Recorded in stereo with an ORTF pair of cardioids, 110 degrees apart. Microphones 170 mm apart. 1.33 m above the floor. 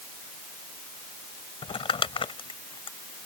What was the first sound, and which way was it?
Crumpling, 30° left.